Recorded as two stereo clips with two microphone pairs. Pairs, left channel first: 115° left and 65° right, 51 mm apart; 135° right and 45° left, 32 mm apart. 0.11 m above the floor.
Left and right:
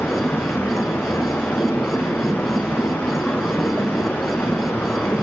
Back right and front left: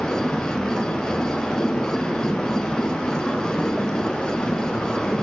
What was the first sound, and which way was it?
Running water, 160° left.